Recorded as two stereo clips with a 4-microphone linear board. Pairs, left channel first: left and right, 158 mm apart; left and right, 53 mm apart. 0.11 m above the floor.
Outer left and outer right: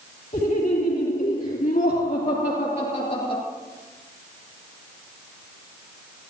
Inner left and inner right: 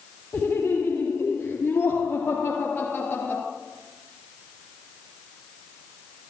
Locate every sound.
0.3 s laughter: 55° left (ahead or behind), 3.5 m; by 3.4 s 35° left (ahead or behind), 1.9 m